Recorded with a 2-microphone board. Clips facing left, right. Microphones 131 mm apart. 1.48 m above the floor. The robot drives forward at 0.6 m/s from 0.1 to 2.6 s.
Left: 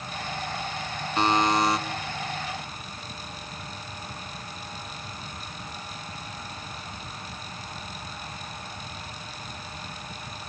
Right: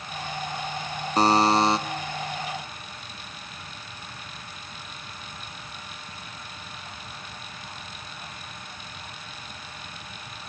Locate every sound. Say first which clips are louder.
1.2 s a buzzer: right 3 dB; 40° right (ahead or behind), 0.5 m; by 1.8 s 25° right (ahead or behind), 0.7 m